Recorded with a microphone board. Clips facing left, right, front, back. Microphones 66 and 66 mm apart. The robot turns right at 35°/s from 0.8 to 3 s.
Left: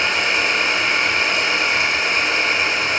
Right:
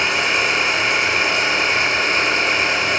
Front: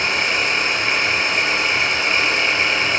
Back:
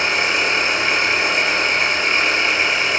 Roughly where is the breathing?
No breathing in this recording.